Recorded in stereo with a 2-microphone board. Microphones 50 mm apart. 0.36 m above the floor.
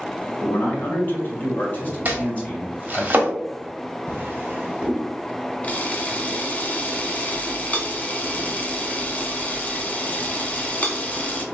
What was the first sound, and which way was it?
A man speaking, 40° left (ahead or behind).